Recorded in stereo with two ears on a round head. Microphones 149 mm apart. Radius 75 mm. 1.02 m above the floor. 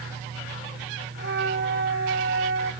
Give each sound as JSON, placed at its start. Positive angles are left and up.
{"t": 1.2, "sound": "a flute", "side_deg": -70, "distance_m": 1.9}